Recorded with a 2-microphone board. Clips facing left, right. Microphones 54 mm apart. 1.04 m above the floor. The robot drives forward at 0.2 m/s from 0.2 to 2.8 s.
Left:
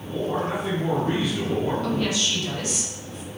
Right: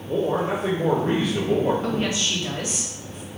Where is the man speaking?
75° right (ahead or behind), 1.1 m; by 1.7 s 80° right, 1.1 m.